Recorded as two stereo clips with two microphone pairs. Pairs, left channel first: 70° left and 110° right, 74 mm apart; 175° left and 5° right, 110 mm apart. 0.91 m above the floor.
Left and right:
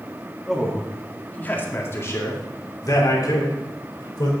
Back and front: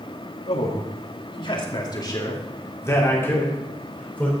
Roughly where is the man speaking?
Behind.